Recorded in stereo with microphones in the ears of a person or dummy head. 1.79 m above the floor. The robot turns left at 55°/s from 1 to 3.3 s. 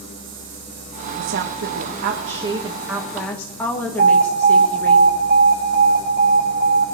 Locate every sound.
1.2 s a woman speaking: 70° right, 1.6 m; by 5.0 s 170° left, 1.6 m
4.0 s an alarm: 70° right (ahead or behind), 7 m